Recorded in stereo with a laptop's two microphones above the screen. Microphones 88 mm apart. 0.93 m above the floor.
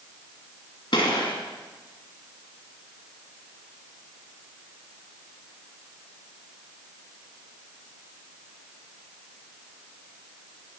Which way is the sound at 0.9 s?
65° left (ahead or behind).